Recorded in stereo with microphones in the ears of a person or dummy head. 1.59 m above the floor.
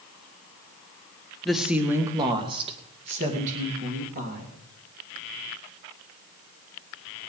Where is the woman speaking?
Centre (ahead or behind), 1.4 m; by 4.5 s 55° right (ahead or behind), 3.5 m.